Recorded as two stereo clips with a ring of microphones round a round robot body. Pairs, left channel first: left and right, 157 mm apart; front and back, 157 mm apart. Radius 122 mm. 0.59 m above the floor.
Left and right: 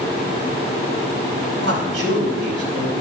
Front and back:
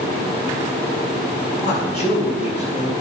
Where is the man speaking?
110° right, 4.5 m.